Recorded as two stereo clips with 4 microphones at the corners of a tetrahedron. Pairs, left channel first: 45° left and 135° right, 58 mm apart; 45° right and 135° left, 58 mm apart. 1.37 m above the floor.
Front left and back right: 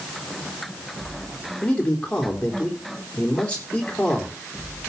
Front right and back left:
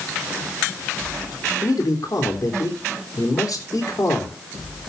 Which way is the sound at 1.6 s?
20° right.